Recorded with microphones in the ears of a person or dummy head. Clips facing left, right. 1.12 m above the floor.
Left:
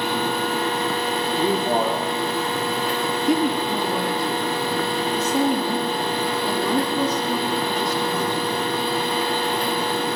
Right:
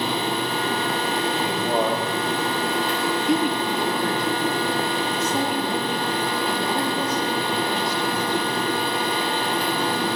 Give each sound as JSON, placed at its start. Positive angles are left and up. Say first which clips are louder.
{"t": 1.4, "sound": "a man speaking", "louder": "left 4 dB", "side_deg": 40, "distance_m": 3.0}
{"t": 3.3, "sound": "a woman speaking", "louder": "left 3 dB", "side_deg": 85, "distance_m": 10.0}